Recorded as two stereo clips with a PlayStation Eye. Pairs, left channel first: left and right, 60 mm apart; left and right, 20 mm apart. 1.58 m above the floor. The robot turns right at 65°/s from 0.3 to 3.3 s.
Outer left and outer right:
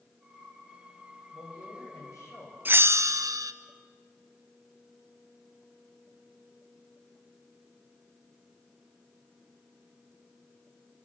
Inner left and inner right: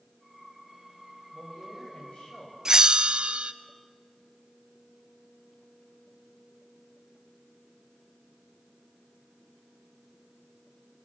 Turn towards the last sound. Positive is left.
turn(degrees=-105)